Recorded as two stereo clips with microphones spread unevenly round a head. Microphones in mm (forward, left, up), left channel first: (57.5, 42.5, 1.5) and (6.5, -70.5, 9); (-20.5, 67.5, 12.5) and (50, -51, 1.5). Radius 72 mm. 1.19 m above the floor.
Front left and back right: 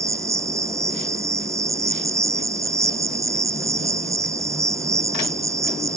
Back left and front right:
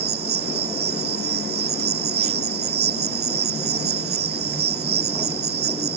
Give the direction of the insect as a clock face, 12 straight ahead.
2 o'clock.